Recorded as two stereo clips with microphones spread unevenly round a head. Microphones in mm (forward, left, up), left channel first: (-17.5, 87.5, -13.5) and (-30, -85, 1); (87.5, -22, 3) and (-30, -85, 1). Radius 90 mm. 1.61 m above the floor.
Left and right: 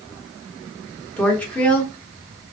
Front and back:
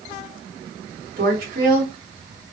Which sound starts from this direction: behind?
A woman speaking, at 1.2 s.